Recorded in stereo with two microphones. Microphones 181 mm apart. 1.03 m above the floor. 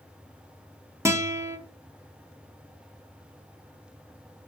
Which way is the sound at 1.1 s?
15° right (ahead or behind).